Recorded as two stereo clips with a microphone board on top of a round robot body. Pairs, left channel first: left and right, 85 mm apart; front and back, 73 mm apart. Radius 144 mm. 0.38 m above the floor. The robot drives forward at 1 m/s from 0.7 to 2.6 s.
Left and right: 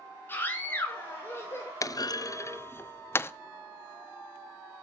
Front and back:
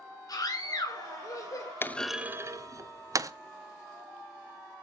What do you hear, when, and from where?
0.3 s a scream: 25° left, 3.5 m; by 1.7 s 40° left, 2.5 m
1.8 s a clunk: 50° left, 0.6 m; by 3.3 s 150° left, 0.8 m